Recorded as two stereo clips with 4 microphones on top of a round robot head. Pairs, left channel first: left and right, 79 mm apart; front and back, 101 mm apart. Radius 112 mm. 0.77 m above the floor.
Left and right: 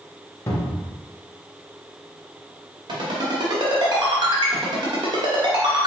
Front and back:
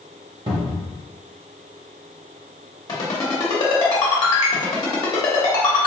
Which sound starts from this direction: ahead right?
A ringtone, at 2.9 s.